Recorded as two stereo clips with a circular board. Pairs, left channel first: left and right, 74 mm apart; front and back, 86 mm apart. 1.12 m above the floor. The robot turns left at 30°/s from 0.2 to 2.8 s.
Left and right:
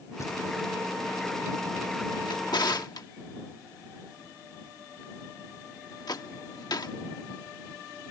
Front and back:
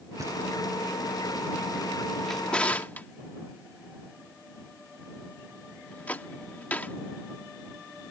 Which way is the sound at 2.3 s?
85° left.